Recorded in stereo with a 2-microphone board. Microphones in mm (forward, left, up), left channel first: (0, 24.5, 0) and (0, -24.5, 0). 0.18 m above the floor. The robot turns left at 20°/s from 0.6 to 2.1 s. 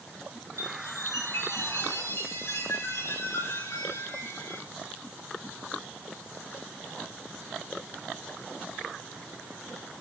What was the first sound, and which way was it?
A chime, 105° left.